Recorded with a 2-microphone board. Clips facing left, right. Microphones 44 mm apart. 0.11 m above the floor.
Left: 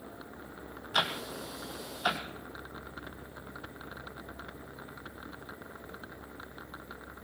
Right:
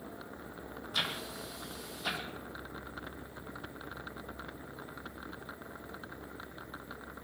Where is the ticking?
75° left (ahead or behind), 1.5 m.